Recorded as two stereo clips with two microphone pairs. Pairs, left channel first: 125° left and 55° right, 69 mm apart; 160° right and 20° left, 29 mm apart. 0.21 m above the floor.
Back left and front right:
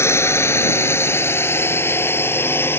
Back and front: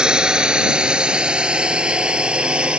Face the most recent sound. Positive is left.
turn(degrees=75)